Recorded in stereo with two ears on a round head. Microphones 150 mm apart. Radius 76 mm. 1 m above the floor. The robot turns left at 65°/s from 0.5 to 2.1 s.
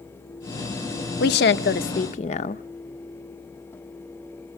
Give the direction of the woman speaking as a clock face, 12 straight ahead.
9 o'clock.